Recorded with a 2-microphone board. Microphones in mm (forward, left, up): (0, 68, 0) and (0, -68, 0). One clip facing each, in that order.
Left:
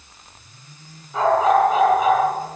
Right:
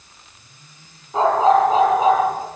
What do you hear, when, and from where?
1.1 s a dog barking: 30° right (ahead or behind), 8 m